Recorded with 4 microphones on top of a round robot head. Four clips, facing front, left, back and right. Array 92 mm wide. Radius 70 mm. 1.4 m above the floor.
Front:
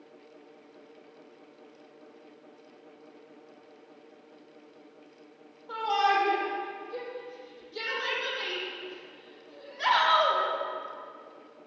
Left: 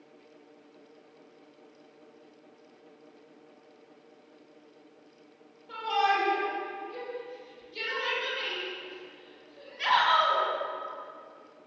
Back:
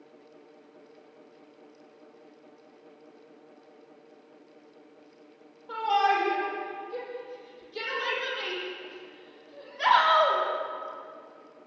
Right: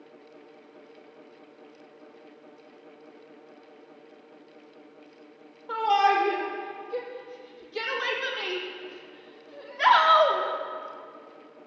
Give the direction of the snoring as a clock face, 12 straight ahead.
No snoring in this recording.